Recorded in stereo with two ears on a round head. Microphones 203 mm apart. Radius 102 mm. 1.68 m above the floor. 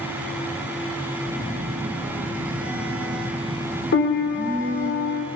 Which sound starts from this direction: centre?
A phone buzzing, at 1.2 s.